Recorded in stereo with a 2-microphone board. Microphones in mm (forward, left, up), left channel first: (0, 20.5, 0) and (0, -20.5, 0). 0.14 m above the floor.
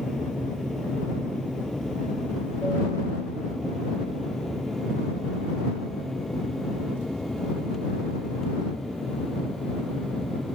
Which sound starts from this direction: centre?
An aircraft, at 0.0 s.